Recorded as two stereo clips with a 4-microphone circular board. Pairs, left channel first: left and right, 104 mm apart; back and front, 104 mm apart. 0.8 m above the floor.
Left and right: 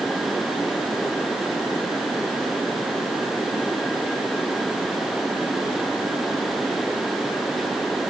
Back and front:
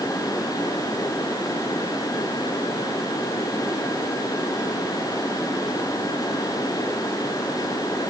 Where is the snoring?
No snoring in this recording.